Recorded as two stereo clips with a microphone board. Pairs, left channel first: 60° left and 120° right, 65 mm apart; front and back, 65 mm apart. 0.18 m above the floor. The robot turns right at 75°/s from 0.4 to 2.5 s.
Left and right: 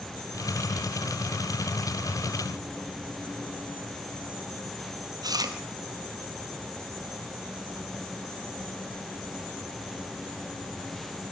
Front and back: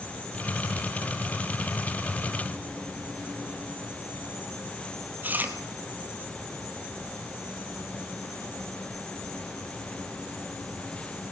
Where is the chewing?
115° right, 1.5 m.